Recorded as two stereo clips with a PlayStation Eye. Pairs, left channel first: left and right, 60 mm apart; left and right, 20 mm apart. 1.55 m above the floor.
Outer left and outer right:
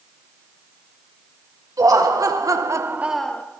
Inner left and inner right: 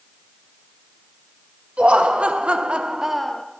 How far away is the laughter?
About 2 m.